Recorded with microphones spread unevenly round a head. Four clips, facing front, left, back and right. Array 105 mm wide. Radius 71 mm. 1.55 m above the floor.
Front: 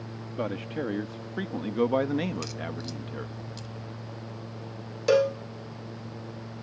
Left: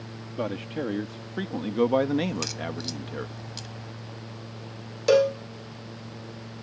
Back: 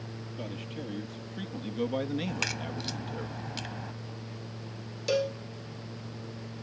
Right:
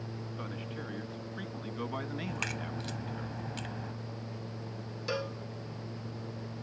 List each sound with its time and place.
0.4 s a man speaking: 50° left; by 3.3 s 95° left
2.3 s a crack: 170° right
5.1 s a cowbell: 70° left